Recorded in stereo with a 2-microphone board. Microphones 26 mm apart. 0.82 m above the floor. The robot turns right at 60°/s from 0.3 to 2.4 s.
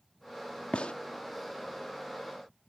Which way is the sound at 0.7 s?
55° left (ahead or behind).